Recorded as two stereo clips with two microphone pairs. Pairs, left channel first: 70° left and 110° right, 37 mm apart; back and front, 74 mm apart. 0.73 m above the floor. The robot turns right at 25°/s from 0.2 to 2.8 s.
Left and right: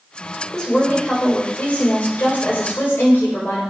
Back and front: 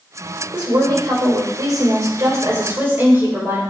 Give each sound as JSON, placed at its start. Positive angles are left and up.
{"t": 0.5, "sound": "a woman speaking", "azimuth_deg": 5, "distance_m": 3.5}